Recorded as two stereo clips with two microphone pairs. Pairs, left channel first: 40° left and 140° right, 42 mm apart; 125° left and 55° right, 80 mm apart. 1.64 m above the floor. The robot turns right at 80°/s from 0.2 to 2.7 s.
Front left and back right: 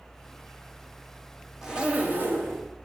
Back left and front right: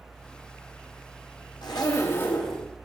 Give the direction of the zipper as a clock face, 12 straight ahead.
7 o'clock.